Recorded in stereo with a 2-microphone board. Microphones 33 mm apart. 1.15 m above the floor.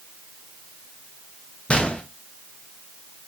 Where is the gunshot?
35° left (ahead or behind), 0.8 m.